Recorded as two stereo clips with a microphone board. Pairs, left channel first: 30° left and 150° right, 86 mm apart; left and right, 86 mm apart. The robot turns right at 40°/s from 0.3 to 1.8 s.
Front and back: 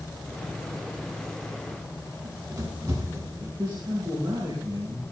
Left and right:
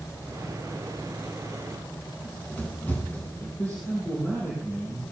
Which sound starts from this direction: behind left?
A man speaking, at 3.6 s.